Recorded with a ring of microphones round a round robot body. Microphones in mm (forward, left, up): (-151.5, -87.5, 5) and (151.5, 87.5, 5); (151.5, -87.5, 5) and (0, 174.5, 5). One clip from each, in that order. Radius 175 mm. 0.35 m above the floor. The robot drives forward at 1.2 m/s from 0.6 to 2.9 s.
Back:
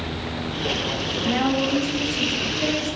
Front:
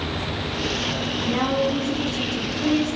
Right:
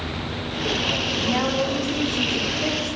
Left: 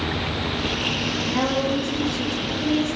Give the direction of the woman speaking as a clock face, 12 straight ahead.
4 o'clock.